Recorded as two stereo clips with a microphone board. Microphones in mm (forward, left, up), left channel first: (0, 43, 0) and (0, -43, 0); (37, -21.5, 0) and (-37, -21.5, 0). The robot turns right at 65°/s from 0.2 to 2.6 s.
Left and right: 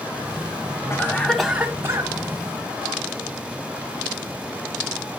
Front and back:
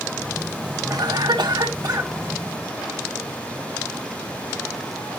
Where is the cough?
145° left, 1.8 m; by 2.1 s 135° right, 1.8 m.